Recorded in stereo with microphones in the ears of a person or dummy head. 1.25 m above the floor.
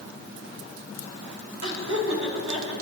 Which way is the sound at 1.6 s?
75° right (ahead or behind).